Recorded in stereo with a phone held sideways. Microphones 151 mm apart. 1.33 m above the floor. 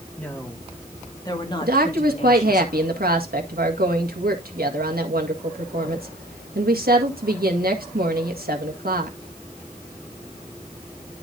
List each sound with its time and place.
0.2 s a woman speaking: 10° left (ahead or behind), 3 m; by 2.6 s 50° left (ahead or behind), 2.5 m
1.6 s a woman speaking: 85° right, 1.9 m